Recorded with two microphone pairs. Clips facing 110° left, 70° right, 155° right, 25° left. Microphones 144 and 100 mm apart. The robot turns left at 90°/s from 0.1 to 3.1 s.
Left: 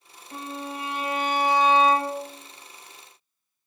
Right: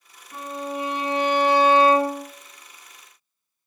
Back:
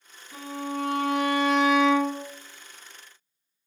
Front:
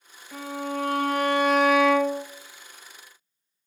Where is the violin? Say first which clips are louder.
Right 4 dB, front 2 dB; 55° left, 0.8 m; by 2.2 s 115° right, 0.8 m.